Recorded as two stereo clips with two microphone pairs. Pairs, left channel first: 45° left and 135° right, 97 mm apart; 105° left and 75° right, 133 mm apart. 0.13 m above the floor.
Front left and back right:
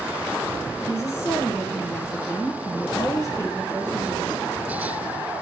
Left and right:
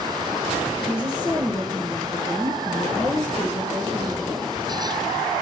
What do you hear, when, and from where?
0.9 s a woman speaking: 80° left, 2.0 m